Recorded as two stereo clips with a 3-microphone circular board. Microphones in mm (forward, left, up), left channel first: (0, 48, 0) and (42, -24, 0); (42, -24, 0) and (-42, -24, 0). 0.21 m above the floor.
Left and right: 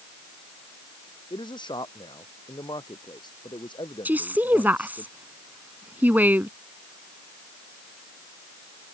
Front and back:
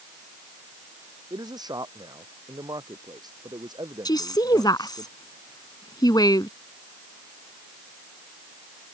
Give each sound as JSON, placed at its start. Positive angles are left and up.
{"t": 1.3, "sound": "a man speaking", "azimuth_deg": 145}
{"t": 4.0, "sound": "a woman speaking", "azimuth_deg": 5}